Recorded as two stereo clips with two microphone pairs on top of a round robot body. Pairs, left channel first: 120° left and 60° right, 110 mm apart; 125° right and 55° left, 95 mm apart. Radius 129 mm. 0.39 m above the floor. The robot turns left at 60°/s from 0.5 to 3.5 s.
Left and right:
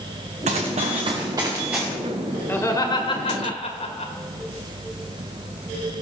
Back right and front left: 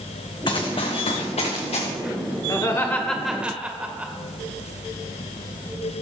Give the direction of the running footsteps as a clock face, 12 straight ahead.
3 o'clock.